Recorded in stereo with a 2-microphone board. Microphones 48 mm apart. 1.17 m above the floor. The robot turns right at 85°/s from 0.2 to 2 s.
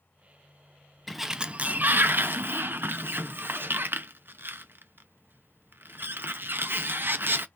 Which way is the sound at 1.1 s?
5° left (ahead or behind).